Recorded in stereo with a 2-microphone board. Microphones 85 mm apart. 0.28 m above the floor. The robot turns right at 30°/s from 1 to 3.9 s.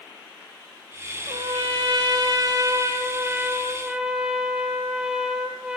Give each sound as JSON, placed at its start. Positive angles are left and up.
{"t": 1.3, "sound": "a trumpet", "azimuth_deg": -90, "distance_m": 2.5}